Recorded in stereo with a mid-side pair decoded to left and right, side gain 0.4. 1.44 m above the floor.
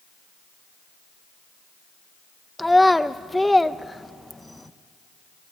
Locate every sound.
2.6 s a child speaking: 10° left, 1.1 m